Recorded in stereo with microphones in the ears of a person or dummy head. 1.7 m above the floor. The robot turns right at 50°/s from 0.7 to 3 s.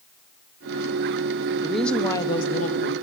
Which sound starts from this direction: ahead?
A woman speaking, at 1.6 s.